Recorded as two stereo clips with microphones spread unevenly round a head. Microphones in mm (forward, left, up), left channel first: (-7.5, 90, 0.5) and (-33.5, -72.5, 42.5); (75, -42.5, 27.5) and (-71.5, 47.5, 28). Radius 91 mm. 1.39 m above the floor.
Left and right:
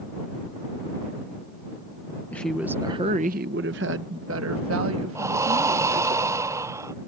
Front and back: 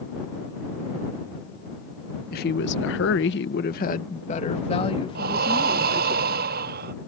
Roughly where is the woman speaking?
Ahead.